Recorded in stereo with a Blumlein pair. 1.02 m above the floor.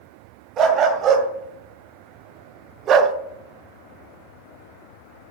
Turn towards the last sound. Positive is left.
turn(degrees=-25)